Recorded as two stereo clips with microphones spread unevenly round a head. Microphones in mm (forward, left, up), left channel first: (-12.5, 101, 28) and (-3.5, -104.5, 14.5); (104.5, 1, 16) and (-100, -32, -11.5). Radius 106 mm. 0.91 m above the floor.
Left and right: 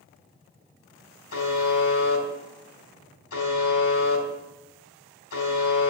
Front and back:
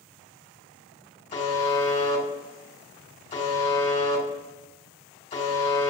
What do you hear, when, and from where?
1.3 s a buzzer: 75° left, 3 m